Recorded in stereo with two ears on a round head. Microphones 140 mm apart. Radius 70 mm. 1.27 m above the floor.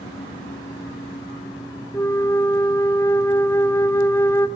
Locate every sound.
1.9 s a flute: 15° left (ahead or behind), 1.7 m